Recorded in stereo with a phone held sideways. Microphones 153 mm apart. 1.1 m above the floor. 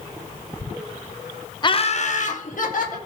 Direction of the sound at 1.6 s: 30° left (ahead or behind).